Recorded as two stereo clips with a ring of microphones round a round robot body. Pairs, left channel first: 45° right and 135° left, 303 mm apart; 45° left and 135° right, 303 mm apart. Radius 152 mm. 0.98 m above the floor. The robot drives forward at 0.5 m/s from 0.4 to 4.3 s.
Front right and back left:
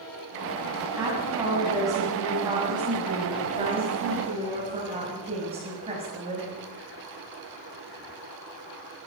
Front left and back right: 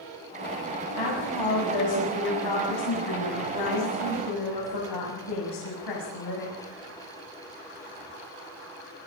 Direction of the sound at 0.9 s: 50° left.